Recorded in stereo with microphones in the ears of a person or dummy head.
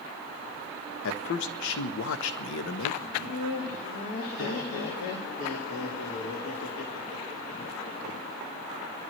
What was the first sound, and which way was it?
A man speaking, 70° left (ahead or behind).